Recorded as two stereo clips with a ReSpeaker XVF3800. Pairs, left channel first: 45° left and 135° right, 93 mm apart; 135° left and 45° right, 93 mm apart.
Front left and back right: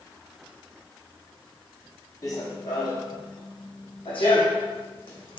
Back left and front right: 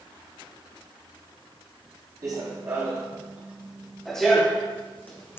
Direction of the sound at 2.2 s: Straight ahead.